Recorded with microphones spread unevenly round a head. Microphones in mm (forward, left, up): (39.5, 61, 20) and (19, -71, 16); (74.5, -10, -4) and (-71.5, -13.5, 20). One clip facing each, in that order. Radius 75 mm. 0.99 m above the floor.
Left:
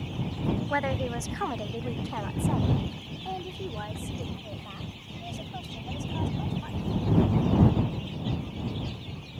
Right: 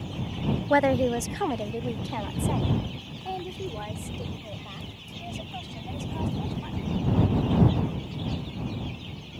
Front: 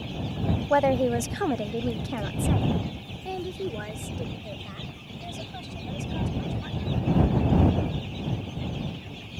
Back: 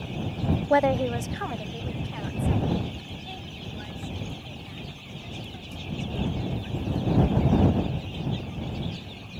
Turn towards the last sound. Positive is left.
turn(degrees=-15)